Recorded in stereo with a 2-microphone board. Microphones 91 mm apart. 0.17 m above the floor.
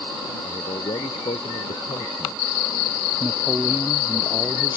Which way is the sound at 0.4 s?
75° left (ahead or behind).